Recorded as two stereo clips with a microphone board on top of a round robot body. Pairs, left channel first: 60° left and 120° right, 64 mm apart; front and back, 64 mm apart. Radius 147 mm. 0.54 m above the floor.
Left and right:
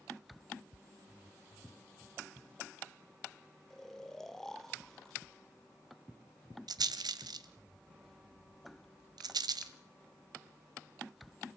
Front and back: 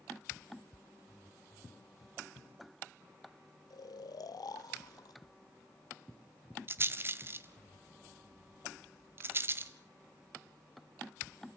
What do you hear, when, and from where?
3.7 s snoring: 25° right, 0.5 m
6.7 s a rattle: 125° right, 1.0 m